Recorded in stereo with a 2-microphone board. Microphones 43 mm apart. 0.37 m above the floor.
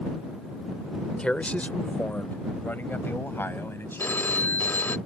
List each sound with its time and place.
1.2 s a man speaking: 25° left (ahead or behind); by 4.7 s 70° left (ahead or behind)
4.0 s a phone ringing: 55° left (ahead or behind)